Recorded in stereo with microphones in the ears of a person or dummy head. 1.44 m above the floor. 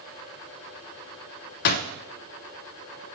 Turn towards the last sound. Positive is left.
turn(degrees=55)  # may be behind; listen again after turning